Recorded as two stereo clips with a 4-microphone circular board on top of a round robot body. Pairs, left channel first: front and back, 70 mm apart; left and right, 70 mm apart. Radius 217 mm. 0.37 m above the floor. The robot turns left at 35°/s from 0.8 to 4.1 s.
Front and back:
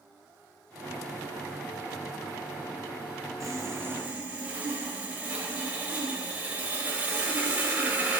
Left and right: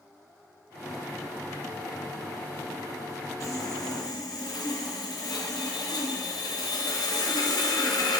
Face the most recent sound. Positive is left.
turn(degrees=110)